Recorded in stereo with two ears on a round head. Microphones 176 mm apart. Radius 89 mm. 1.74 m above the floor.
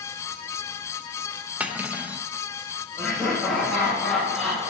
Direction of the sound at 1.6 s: 10° right (ahead or behind).